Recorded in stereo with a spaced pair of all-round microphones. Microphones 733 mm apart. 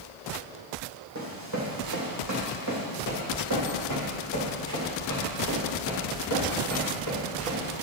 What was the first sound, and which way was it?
Running footsteps, 20° right (ahead or behind).